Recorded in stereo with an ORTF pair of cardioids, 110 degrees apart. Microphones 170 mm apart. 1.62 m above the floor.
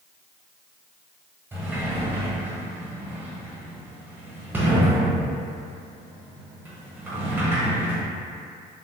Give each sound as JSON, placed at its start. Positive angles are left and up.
{"t": 1.5, "sound": "a sliding door", "azimuth_deg": -10, "distance_m": 0.8}